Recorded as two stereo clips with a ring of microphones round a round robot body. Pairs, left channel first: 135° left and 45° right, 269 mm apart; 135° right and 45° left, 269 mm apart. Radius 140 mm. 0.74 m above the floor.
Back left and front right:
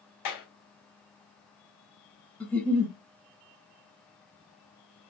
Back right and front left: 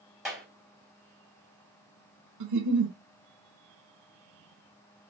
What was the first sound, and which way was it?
A clap, 135° left.